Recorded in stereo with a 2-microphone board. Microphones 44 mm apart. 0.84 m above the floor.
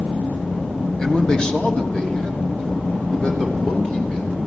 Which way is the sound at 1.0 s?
20° left (ahead or behind).